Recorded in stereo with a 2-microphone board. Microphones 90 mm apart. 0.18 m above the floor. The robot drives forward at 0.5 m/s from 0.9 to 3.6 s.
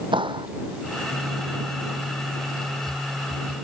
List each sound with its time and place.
0.1 s a clap: 75° right (ahead or behind)